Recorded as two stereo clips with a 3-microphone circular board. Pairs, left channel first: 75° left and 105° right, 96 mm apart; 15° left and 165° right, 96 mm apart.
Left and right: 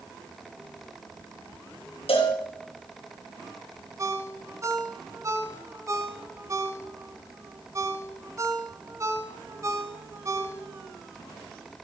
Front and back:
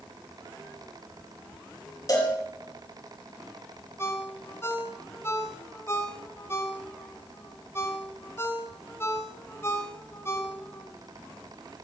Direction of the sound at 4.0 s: 45° right.